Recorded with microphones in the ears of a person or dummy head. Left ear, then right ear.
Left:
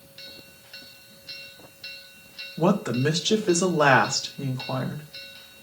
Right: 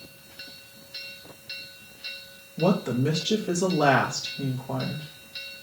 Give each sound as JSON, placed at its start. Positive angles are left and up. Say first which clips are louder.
{"t": 2.6, "sound": "a woman speaking", "louder": "left 1 dB", "side_deg": 55, "distance_m": 2.0}